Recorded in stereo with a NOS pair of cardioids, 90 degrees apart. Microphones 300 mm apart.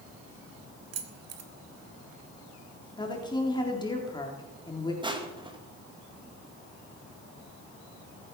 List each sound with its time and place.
0.9 s keys jangling: 60° right, 2 m
3.0 s a woman speaking: 15° left, 3.5 m
5.0 s crushing: 15° right, 2.5 m